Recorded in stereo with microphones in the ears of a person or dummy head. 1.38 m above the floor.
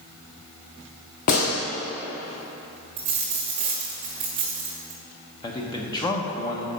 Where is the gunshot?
40° left (ahead or behind), 1.1 m.